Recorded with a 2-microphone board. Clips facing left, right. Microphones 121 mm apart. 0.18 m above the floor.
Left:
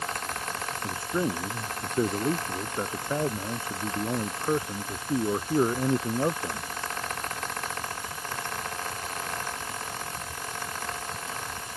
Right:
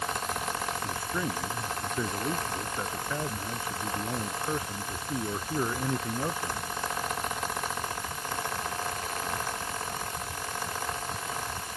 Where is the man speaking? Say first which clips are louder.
Left 4 dB; 30° left (ahead or behind).